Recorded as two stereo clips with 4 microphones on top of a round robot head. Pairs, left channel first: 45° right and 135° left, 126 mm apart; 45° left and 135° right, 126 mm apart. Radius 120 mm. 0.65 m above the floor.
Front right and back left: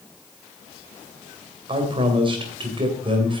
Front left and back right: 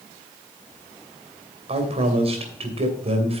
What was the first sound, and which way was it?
A man speaking, 175° right.